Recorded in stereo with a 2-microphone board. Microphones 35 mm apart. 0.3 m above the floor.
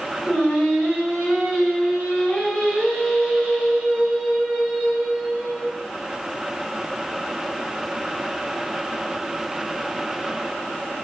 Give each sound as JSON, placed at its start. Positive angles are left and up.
{"t": 0.2, "sound": "singing", "side_deg": 40, "distance_m": 1.3}